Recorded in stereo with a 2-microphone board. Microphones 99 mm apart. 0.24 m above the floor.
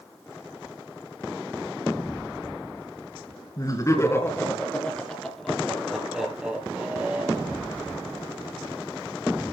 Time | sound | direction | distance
3.6 | laughter | 40° left (ahead or behind) | 4 m